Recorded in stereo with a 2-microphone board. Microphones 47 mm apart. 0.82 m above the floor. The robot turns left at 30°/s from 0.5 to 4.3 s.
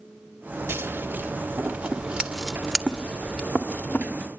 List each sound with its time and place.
0.7 s scissors: 60° right (ahead or behind), 1.9 m; by 4.1 s 40° left (ahead or behind), 1.9 m